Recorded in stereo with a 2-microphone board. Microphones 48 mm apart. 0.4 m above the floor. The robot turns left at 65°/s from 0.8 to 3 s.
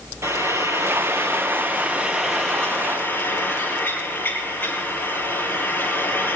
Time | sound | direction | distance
0.2 | frying | 80° right | 4.5 m